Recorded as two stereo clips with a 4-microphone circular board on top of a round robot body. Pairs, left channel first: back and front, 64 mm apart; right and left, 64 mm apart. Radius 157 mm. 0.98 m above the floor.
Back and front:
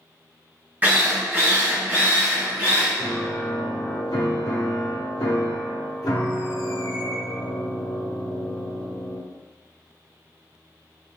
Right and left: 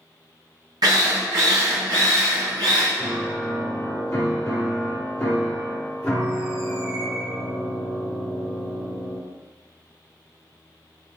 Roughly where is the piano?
Behind right.